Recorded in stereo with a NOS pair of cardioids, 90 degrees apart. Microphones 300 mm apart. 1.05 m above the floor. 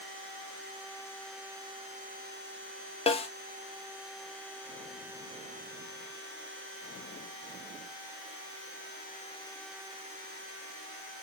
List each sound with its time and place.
3.1 s a snare drum: 20° left, 1.4 m